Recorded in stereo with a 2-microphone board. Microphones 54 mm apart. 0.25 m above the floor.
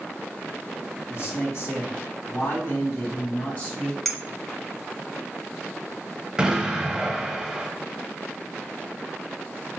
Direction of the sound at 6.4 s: 15° right (ahead or behind).